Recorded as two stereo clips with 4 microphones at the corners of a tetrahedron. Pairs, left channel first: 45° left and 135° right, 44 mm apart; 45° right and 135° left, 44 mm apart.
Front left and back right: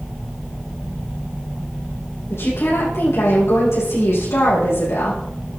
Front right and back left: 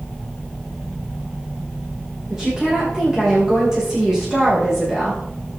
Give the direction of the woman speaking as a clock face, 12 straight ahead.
10 o'clock.